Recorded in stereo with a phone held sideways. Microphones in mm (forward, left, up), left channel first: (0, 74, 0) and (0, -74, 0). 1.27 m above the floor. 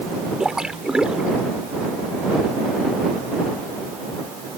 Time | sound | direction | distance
0.4 | a splash | 5° right (ahead or behind) | ?